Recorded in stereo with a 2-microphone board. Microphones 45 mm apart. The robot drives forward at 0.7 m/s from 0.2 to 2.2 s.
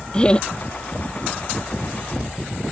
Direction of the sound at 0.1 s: 20° left (ahead or behind).